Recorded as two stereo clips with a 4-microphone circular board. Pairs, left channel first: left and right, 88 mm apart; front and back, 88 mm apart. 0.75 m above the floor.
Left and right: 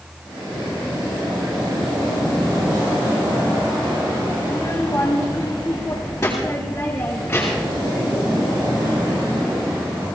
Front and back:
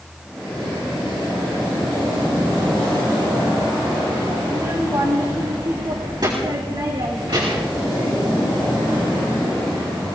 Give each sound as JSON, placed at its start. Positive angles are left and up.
{"t": 4.4, "sound": "a child speaking", "azimuth_deg": 135, "distance_m": 3.0}